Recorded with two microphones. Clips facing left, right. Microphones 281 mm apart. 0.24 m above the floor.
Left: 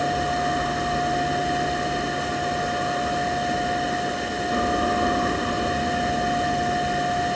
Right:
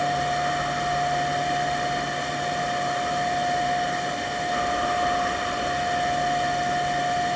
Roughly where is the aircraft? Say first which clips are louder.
Left 2 dB; left.